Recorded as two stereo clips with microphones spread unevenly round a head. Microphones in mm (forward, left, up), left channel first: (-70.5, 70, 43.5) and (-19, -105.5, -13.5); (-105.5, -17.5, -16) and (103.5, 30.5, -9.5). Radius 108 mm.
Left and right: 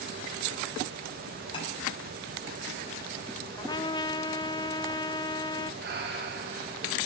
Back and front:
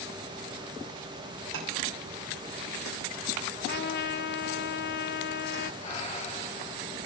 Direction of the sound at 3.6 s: 160° left.